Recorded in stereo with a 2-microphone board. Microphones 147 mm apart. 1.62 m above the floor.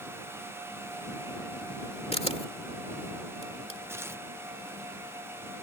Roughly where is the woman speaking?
I don't hear a woman speaking.